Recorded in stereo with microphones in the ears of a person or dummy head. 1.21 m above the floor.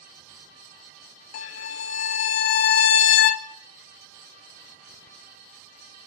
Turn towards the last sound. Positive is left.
turn(degrees=40)  # may be behind; listen again after turning